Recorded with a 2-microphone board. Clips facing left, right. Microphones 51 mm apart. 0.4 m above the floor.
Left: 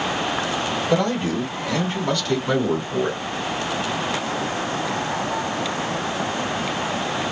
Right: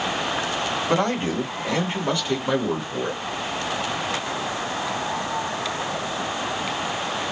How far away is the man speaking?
About 1.5 m.